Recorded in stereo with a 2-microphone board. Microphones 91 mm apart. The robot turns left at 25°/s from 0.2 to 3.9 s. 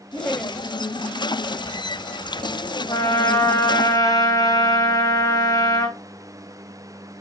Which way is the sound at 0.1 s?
10° left (ahead or behind).